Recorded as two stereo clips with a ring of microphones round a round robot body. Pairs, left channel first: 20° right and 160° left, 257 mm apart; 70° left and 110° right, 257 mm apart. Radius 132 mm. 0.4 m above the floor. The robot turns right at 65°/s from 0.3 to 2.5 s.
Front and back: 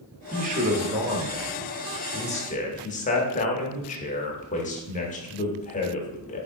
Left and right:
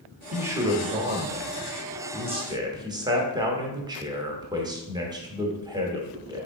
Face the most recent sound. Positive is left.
turn(degrees=-50)